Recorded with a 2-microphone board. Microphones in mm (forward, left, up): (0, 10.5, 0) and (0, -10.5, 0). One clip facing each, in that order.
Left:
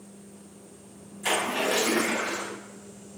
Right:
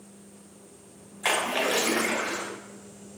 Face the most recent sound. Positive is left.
turn(degrees=-70)  # may be behind; listen again after turning